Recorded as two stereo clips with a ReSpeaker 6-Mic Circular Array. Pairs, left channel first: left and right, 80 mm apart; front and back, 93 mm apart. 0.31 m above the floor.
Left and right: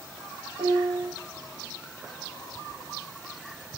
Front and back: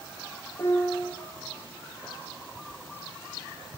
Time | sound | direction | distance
0.6 | a piano | 55° right | 4 m